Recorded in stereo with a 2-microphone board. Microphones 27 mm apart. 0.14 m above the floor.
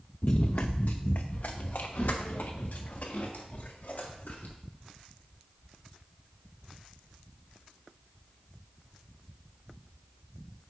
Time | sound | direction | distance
0.2 | running footsteps | 50° left (ahead or behind) | 0.5 m